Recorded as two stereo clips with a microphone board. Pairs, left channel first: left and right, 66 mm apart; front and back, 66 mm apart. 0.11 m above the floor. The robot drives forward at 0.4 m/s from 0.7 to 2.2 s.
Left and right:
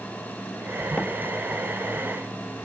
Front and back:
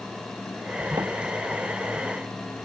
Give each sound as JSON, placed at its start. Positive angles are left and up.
{"t": 1.0, "sound": "a door slam", "azimuth_deg": 165}